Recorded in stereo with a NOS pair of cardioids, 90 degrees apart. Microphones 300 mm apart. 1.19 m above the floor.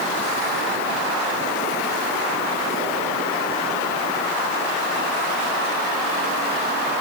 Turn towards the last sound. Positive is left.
No sound to turn to.